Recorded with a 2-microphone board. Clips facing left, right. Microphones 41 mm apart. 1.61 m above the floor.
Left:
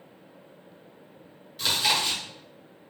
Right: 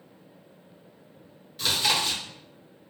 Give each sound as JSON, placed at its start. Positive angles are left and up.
{"t": 1.6, "sound": "chewing", "side_deg": 0, "distance_m": 0.7}